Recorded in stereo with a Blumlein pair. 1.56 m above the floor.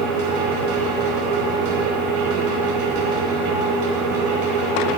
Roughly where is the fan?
Ahead right.